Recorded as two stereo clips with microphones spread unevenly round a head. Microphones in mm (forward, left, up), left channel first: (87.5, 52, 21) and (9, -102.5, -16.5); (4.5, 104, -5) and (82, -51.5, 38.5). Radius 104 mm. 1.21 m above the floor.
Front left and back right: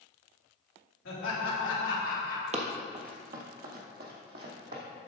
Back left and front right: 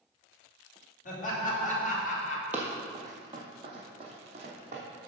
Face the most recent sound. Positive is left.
turn(degrees=-100)